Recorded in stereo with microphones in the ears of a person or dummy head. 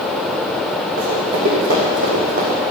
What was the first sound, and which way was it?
Running footsteps, 45° right (ahead or behind).